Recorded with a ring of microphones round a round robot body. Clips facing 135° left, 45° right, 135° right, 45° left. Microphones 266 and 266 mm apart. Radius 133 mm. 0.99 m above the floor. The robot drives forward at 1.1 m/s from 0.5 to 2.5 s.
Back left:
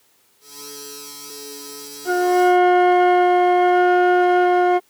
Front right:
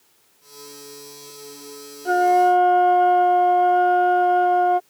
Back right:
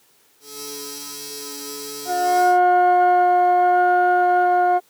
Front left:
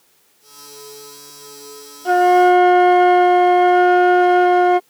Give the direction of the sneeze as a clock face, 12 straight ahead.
I don't hear a sneeze.